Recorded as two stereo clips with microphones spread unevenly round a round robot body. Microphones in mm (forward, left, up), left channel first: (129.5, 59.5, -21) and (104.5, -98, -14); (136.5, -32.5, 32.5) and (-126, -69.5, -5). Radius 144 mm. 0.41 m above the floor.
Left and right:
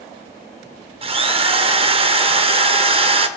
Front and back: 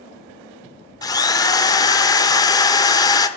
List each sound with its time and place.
1.0 s a drill: 70° right, 0.5 m